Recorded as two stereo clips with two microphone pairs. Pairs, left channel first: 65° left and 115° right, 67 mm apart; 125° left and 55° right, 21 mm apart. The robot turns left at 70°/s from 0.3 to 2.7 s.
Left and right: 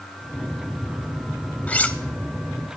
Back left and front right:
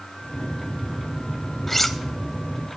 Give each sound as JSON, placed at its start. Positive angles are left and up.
{"t": 1.7, "sound": "cutlery clinking", "azimuth_deg": 75, "distance_m": 0.5}